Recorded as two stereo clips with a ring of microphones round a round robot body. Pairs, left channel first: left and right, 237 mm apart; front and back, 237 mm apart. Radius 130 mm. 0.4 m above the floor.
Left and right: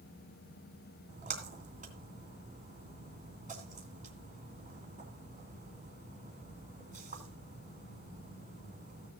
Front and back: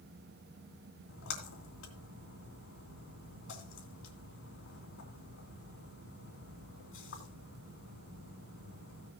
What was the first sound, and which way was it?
A splash, 30° right.